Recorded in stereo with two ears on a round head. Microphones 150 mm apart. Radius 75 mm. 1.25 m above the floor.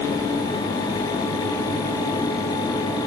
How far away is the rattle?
No rattle in this recording.